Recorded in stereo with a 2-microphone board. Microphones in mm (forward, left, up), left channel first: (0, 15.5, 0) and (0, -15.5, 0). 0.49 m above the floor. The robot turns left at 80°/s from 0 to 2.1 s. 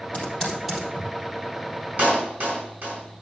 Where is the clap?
60° right (ahead or behind), 4.5 m; by 3.2 s 65° right (ahead or behind), 4.5 m.